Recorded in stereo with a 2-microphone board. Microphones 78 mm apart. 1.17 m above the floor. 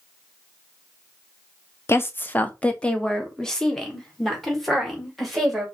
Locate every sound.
1.9 s a woman speaking: 30° left (ahead or behind), 0.5 m; by 5.7 s centre (ahead or behind), 2.5 m